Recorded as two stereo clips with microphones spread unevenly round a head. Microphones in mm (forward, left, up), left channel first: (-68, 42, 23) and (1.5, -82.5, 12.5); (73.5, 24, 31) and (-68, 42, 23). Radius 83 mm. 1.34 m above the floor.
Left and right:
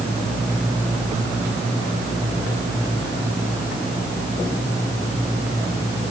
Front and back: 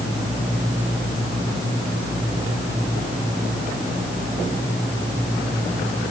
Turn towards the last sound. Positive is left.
No sound to turn to.